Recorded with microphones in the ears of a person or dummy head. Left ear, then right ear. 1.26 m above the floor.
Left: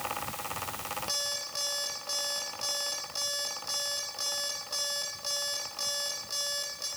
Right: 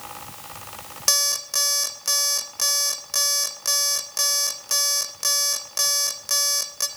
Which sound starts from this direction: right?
An alarm clock, at 1.1 s.